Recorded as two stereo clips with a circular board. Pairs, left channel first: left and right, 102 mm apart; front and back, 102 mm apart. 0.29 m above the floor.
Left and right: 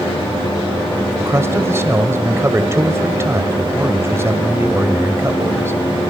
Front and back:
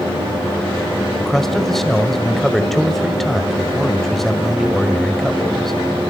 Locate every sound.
1.2 s a man speaking: 80° right, 1.6 m